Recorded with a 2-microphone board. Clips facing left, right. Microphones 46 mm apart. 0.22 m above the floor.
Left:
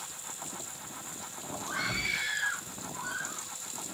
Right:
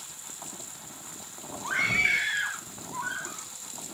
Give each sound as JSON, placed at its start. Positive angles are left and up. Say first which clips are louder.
{"t": 1.6, "sound": "a scream", "louder": "right 8 dB", "side_deg": -50, "distance_m": 4.5}